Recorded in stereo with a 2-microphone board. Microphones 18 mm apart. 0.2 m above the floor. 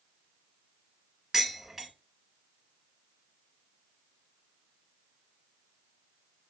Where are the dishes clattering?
10° right (ahead or behind), 1.5 m.